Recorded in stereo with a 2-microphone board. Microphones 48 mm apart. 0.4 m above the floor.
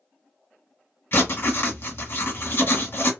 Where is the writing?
55° left (ahead or behind), 1.3 m.